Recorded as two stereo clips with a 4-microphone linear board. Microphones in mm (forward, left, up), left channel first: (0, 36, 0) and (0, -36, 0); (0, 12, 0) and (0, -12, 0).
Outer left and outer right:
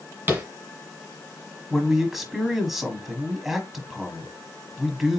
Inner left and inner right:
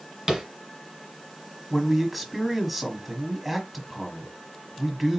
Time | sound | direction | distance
0.3 | tapping | 30° right (ahead or behind) | 1.5 m
1.7 | a man speaking | centre (ahead or behind) | 1.2 m